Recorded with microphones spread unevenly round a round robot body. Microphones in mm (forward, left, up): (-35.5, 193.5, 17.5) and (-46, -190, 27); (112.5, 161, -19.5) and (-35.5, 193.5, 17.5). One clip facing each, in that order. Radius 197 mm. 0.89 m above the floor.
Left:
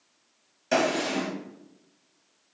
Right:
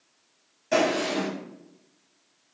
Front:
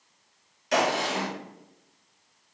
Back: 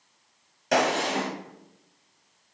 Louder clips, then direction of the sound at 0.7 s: Right 1 dB, back 2 dB; 130° left.